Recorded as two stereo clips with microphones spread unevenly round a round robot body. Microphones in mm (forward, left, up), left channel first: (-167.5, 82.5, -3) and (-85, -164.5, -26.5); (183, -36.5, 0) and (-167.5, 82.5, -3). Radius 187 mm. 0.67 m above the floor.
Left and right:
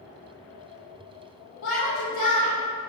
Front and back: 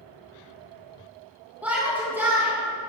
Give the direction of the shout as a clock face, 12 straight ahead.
9 o'clock.